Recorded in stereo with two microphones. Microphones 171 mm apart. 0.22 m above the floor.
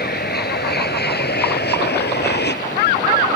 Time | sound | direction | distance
0.0 | an aircraft | 65° left (ahead or behind) | ?